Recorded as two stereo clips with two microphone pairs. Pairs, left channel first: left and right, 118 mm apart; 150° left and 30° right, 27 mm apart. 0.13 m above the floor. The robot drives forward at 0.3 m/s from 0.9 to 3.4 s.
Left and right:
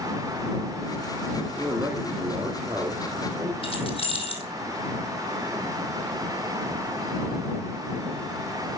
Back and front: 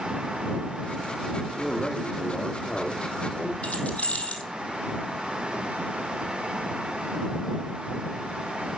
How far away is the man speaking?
About 1.8 m.